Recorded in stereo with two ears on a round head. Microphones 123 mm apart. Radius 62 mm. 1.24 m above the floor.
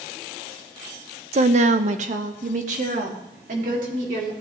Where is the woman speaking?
50° right (ahead or behind), 0.5 m; by 4.3 s 65° right (ahead or behind), 3 m.